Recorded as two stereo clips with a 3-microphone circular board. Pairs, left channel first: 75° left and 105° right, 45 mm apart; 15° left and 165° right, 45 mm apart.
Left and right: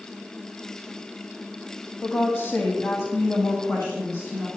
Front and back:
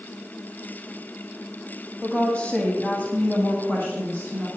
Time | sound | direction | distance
2.0 | a woman speaking | 80° left | 1.4 m